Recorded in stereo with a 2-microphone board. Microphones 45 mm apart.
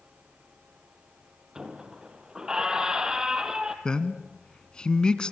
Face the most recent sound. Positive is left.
turn(degrees=20)  # may be behind; listen again after turning